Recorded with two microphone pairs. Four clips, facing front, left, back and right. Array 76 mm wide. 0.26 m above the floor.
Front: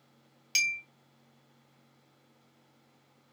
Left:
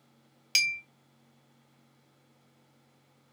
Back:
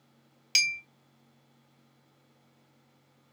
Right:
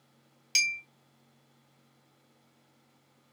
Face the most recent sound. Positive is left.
turn(degrees=145)